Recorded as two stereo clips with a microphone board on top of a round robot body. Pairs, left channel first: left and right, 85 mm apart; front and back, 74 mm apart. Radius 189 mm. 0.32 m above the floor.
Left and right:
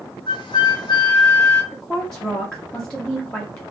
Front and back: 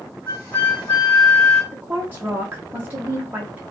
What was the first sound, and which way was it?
A flute, 70° left.